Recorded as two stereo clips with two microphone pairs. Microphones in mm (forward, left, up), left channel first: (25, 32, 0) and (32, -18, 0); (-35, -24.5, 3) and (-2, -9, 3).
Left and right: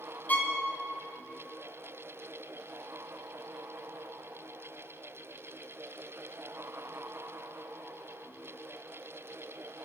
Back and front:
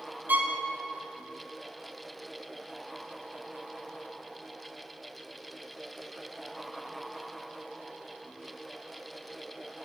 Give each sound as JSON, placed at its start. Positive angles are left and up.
{"t": 0.3, "sound": "a violin", "azimuth_deg": 45, "distance_m": 0.6}